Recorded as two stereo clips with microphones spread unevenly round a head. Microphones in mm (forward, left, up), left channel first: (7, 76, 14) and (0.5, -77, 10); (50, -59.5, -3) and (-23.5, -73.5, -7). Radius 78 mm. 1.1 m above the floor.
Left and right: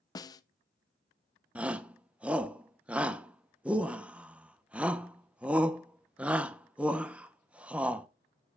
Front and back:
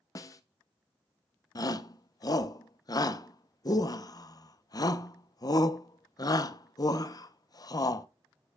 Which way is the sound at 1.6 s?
10° right.